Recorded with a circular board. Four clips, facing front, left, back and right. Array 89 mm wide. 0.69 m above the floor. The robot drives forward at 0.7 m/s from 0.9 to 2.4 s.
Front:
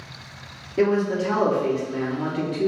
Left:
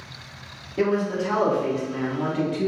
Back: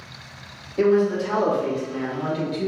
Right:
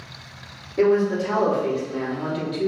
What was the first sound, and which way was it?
A man speaking, 25° left.